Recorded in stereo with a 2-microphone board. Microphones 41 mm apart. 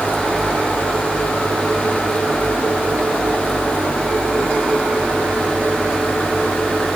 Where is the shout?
I don't hear a shout.